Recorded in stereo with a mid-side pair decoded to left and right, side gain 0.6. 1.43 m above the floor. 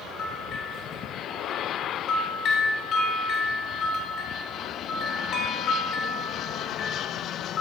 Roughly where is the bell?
Ahead left.